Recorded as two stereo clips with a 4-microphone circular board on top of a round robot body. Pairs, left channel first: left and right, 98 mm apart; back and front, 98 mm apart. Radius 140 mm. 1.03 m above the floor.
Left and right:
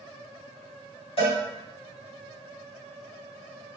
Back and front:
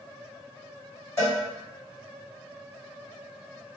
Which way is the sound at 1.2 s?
120° left.